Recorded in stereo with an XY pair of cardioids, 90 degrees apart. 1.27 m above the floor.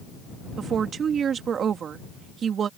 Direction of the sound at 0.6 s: 65° right.